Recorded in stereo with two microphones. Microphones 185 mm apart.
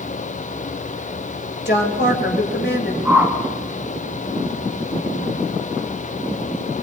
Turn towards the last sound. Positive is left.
turn(degrees=-10)  # may be behind; listen again after turning